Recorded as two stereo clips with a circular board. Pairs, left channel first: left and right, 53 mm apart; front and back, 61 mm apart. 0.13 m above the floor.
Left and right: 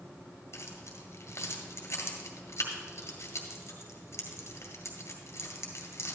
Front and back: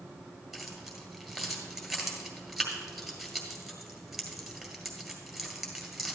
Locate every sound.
0.5 s keys jangling: 90° left, 1.8 m